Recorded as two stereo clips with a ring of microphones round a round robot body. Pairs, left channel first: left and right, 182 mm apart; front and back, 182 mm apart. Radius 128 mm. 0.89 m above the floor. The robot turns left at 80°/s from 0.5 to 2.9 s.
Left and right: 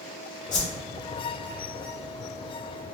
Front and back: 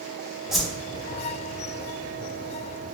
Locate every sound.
0.5 s a whoosh: 95° left, 0.7 m; by 0.8 s 65° left, 0.7 m